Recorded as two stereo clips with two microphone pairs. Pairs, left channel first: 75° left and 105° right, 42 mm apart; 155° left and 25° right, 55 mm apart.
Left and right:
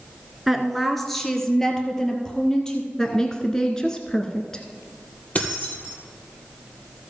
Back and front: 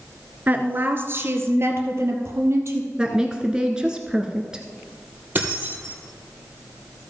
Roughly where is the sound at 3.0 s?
Ahead left.